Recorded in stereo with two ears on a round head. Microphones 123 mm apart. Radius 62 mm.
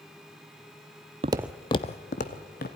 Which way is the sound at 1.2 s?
40° right (ahead or behind).